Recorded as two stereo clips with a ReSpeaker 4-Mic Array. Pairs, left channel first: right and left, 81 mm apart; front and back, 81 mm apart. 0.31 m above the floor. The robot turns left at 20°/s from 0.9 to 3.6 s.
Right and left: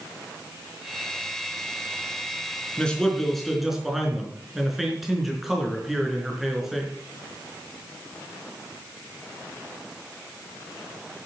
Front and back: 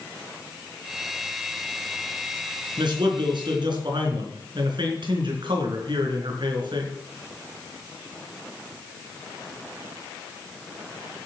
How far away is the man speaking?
About 4 m.